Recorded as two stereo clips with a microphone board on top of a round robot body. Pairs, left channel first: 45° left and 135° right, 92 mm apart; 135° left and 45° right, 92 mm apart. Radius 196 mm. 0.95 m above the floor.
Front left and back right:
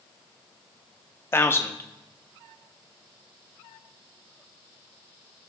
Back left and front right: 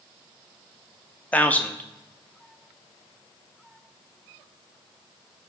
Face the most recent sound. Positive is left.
turn(degrees=80)